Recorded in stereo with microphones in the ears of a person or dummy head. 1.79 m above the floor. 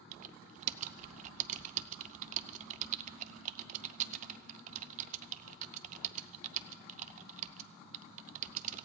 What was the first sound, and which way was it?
Typing on a keyboard, 40° right (ahead or behind).